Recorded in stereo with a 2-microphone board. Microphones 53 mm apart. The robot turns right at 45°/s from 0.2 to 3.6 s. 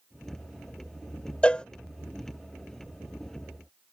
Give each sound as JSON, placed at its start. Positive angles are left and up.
{"t": 1.4, "sound": "a cowbell", "side_deg": 25}